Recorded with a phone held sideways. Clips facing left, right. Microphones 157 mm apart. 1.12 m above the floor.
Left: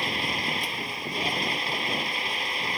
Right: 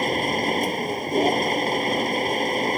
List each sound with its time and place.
0.0 s a machine running: 45° right (ahead or behind)